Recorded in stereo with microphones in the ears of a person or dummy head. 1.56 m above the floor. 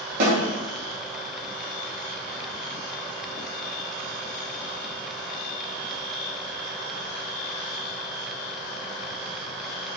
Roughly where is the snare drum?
Right.